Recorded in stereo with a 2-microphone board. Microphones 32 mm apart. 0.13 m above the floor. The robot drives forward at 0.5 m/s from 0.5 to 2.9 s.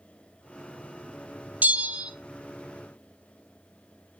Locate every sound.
1.6 s a bell: 60° right (ahead or behind), 0.6 m; by 2.1 s 45° right (ahead or behind), 0.7 m